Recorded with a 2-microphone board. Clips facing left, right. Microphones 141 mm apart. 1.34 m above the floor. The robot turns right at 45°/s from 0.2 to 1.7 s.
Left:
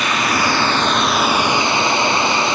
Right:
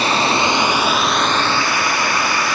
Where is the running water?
40° right, 1.1 m; by 2.5 s 30° left, 1.1 m.